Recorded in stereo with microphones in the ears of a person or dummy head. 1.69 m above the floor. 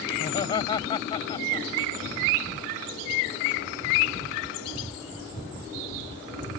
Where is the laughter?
35° left (ahead or behind).